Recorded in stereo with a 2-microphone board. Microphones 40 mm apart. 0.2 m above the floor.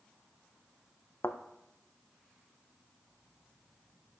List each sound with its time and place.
1.2 s a thud: 75° left (ahead or behind), 0.9 m